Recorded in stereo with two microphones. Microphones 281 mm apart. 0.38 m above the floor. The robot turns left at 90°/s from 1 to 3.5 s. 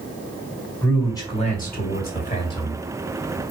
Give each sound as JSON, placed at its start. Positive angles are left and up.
{"t": 0.8, "sound": "a man speaking", "azimuth_deg": 170, "distance_m": 1.5}